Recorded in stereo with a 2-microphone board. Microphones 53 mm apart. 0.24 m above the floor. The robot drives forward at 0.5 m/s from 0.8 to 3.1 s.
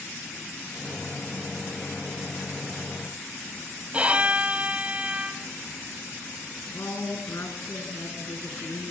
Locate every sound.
3.9 s a violin: 25° right (ahead or behind), 0.8 m
6.7 s a woman speaking: 65° left (ahead or behind), 4 m